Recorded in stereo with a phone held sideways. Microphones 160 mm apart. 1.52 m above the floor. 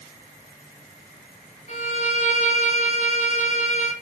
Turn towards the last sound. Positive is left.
turn(degrees=45)  # may be behind; listen again after turning